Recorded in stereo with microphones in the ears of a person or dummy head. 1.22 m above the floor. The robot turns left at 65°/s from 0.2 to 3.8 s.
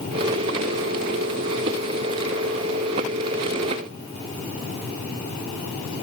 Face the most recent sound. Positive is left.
No sound to turn to.